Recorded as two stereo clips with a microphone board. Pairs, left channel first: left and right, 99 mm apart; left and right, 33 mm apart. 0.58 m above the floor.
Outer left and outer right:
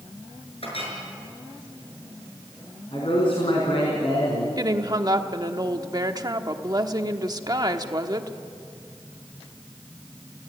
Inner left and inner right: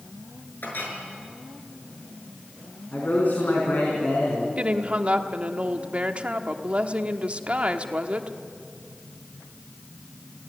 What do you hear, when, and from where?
0.6 s a clink: 70° left (ahead or behind), 6.5 m
2.9 s a man speaking: 60° left (ahead or behind), 5 m
4.6 s a woman speaking: 40° right (ahead or behind), 1.2 m